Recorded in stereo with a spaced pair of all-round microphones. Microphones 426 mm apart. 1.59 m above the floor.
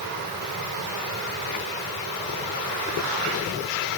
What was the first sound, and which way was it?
Only background noise.